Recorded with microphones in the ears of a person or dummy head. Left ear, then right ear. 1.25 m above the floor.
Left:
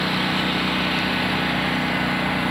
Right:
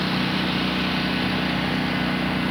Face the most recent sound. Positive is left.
turn(degrees=30)  # may be behind; listen again after turning